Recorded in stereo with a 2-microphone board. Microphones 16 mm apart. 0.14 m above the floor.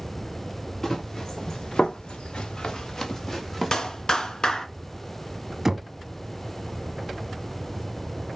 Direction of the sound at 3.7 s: 40° left (ahead or behind).